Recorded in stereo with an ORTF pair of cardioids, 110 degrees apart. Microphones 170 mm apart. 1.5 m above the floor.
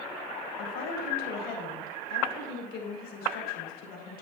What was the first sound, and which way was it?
A woman speaking, 70° left.